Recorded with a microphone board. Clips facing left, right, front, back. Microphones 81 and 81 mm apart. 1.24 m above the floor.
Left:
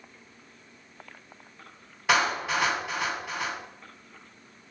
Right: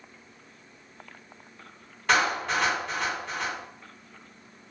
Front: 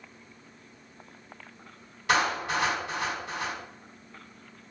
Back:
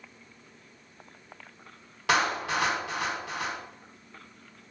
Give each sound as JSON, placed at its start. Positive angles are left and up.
{"t": 2.1, "sound": "a clap", "azimuth_deg": 175, "distance_m": 1.7}